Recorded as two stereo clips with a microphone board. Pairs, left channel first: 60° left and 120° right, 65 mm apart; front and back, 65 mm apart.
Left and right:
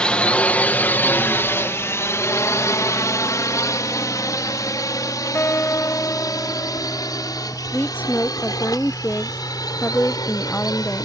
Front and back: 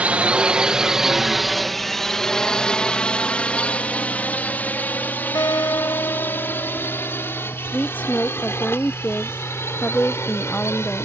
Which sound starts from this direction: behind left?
A drone, at 0.0 s.